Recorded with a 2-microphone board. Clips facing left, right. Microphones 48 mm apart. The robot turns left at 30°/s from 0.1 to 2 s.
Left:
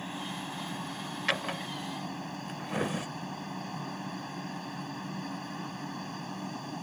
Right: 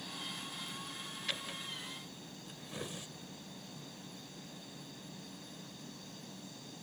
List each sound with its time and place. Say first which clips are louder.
0.0 s a helicopter: left 7 dB; 135° left; by 6.8 s 80° left
1.3 s a drawer: left 11 dB; 85° left; by 3.1 s 65° left (ahead or behind)